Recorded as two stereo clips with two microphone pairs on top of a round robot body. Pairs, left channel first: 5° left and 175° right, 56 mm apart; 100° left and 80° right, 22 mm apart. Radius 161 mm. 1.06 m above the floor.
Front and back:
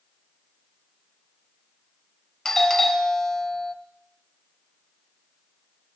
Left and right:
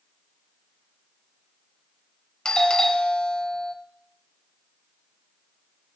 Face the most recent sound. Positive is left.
turn(degrees=80)